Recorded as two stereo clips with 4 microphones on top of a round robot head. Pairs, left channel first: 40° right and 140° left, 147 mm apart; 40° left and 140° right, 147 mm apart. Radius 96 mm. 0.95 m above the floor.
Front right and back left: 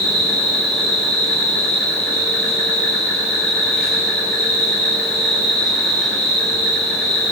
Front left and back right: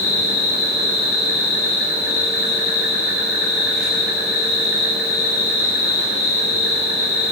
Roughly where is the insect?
Ahead left.